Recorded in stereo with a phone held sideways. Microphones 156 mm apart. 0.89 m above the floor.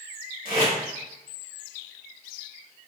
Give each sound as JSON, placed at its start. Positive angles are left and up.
{"t": 0.5, "sound": "tape being pulled", "side_deg": 60, "distance_m": 1.1}